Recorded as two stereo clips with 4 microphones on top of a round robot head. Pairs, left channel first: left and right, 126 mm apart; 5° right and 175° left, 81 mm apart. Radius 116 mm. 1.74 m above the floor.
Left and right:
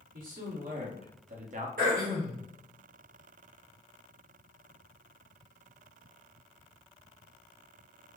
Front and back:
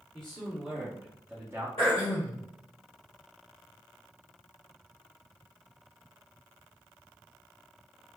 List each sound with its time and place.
0.1 s a man speaking: 90° right, 1.5 m; by 1.7 s 120° right, 0.8 m
1.8 s throat clearing: 70° right, 1.2 m